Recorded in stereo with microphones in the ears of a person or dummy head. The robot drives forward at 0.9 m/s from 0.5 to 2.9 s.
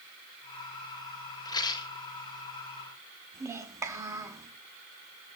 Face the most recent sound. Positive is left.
turn(degrees=-20)  # may be behind; listen again after turning